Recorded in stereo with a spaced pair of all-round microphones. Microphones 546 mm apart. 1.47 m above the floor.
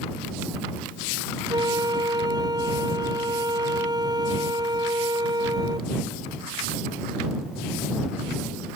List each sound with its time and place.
1.5 s a flute: 5° right (ahead or behind)